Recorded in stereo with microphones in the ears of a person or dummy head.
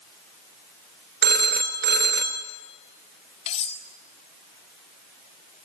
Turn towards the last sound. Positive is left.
turn(degrees=40)  # may be behind; listen again after turning